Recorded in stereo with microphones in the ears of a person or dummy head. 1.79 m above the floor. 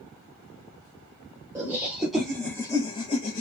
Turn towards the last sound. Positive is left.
turn(degrees=35)  # may be behind; listen again after turning